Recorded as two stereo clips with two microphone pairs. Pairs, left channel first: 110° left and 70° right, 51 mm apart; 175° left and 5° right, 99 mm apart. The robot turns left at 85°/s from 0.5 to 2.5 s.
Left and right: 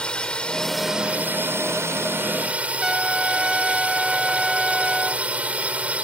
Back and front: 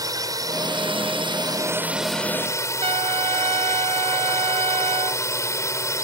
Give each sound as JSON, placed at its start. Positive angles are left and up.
{"t": 0.0, "sound": "a drone", "azimuth_deg": 40}
{"t": 2.8, "sound": "a trumpet", "azimuth_deg": 15}